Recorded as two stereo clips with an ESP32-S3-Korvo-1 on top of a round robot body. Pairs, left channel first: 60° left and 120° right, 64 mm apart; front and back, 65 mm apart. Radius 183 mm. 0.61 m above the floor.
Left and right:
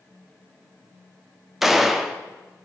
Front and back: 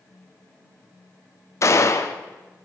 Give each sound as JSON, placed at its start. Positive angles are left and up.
{"t": 1.6, "sound": "a gunshot", "azimuth_deg": -35, "distance_m": 1.2}